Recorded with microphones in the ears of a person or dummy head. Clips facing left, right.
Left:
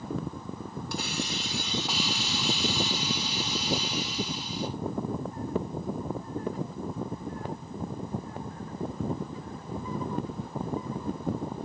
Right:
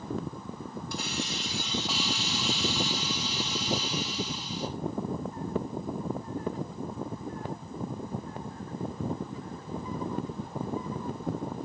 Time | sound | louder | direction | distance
0.9 | a hiss | left 2 dB | 60° left (ahead or behind) | 2.5 m